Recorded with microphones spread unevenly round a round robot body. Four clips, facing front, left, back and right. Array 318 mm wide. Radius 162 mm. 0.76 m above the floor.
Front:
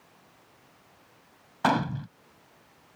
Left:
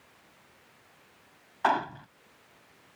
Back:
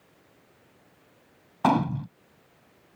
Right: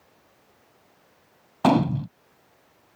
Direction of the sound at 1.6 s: 105° right.